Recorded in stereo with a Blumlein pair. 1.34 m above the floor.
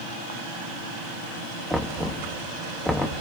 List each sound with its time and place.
1.7 s knocking: 5° left, 1.6 m